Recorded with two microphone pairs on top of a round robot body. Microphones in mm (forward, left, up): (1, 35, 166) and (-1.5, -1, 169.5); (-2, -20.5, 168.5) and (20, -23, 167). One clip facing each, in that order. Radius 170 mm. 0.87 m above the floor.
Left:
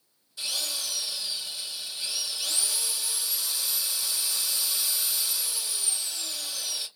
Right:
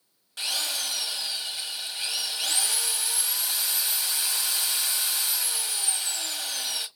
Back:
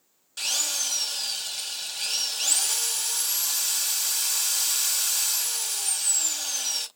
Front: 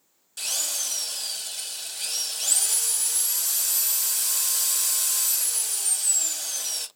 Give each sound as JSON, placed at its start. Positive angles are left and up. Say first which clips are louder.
{"t": 0.4, "sound": "a drill", "louder": "right 3 dB, back 2 dB", "azimuth_deg": -115, "distance_m": 1.2}